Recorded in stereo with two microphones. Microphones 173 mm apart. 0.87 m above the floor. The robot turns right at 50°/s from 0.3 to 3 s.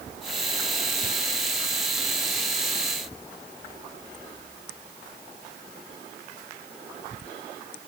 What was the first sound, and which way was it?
Only background noise.